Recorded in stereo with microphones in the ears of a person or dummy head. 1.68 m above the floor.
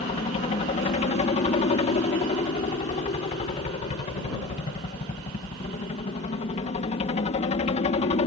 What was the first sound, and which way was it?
A helicopter, 30° left (ahead or behind).